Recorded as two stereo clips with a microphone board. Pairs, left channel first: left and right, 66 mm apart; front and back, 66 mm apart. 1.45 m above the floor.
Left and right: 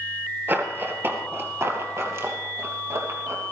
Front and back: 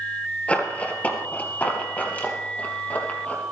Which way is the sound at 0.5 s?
55° right.